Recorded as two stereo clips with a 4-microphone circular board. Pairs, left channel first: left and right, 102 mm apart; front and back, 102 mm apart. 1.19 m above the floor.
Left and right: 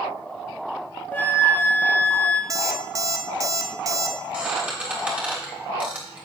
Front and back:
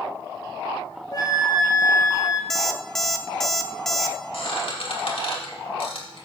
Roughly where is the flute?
Ahead left.